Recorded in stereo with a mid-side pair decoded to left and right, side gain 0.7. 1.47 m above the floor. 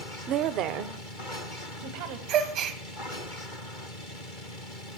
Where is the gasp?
55° right, 1.2 m.